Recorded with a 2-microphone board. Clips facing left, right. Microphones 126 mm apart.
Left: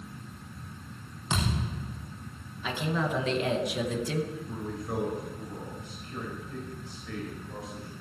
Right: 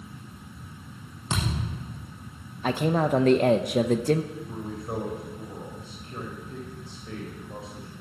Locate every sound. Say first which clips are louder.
1.3 s a thud: even; 20° right (ahead or behind), 5 m
2.6 s a man speaking: right 7 dB; 50° right (ahead or behind), 0.8 m
4.3 s a man speaking: right 1 dB; 25° right (ahead or behind), 4.5 m